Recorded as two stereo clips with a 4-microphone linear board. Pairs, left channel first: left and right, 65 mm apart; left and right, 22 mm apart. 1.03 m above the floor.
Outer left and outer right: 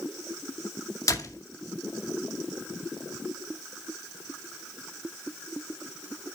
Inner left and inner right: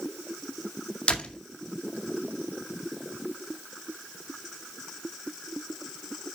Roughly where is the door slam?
Left.